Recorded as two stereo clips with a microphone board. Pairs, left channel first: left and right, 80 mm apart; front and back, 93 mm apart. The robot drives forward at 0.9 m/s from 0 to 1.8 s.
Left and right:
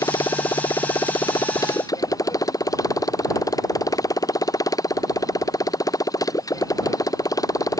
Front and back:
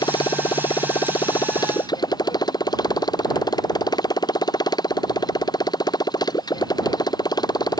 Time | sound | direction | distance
0.0 | a motorcycle | 45° left | ?